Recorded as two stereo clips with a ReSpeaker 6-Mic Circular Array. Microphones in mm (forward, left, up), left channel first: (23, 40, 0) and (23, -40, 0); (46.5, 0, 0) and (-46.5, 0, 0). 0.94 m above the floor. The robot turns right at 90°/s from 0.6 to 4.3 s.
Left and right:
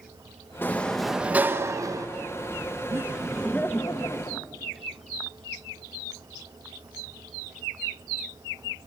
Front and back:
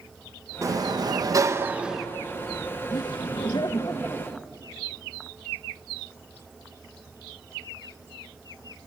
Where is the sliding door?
145° left, 1.0 m; by 2.1 s 85° right, 1.0 m.